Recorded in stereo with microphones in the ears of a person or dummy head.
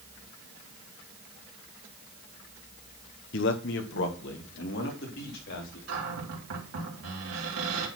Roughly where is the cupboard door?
Right.